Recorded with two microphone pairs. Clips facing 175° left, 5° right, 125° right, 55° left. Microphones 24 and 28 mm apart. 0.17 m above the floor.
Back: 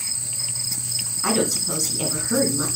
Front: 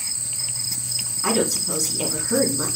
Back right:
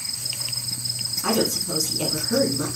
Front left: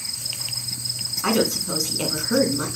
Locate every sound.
1.2 s a woman speaking: 90° left, 1.7 m